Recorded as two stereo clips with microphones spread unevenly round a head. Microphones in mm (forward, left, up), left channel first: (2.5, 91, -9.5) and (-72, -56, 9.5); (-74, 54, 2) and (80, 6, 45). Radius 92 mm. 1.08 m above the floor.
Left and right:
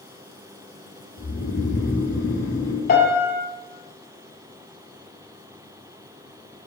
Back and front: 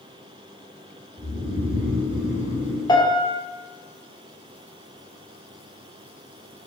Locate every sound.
1.2 s snoring: 55° left, 3 m
2.9 s a piano: 95° left, 1.9 m